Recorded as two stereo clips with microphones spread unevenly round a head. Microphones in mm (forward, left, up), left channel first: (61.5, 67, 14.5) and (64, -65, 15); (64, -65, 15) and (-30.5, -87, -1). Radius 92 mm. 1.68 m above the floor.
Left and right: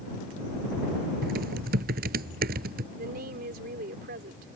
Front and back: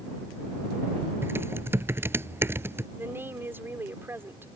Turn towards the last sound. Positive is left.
turn(degrees=-100)